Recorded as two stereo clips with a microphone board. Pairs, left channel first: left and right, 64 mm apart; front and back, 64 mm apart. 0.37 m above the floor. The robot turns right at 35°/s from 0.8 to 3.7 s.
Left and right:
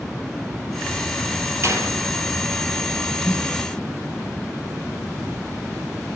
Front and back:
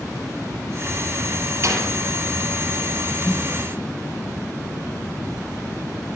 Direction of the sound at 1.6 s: 135° right.